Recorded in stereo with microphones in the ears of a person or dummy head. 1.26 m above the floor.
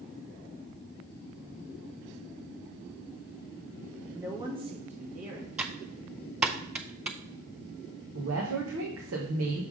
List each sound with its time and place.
4.2 s a woman speaking: 10° right (ahead or behind), 1.1 m; by 5.5 s 50° right (ahead or behind), 1.7 m
5.6 s typing on a keyboard: 5° right (ahead or behind), 0.6 m
8.2 s a woman speaking: 80° right, 1.2 m